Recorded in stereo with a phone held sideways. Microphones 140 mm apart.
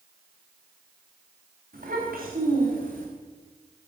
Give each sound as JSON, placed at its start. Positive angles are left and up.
{"t": 1.7, "sound": "a child speaking", "side_deg": -80, "distance_m": 4.5}